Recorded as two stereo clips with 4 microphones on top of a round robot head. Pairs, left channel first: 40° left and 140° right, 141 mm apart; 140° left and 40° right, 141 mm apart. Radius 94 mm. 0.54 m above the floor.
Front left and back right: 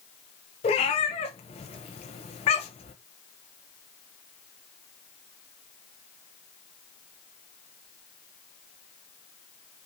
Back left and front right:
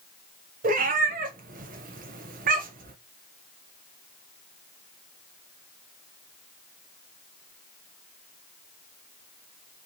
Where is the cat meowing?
10° right, 0.6 m.